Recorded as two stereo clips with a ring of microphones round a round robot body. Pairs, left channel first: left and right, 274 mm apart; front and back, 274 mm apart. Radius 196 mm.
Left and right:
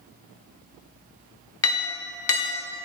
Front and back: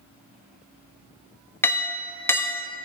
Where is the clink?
80° left, 0.8 m.